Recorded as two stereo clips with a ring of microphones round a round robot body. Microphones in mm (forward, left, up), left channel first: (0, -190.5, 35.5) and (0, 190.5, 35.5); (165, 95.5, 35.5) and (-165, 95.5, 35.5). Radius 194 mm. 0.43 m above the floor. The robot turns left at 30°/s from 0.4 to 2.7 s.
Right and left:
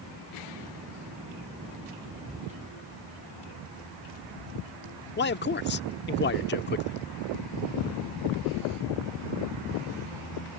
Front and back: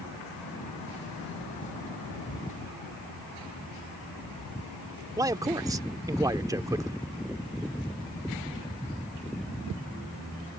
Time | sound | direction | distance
5.2 | a man speaking | 110° right | ?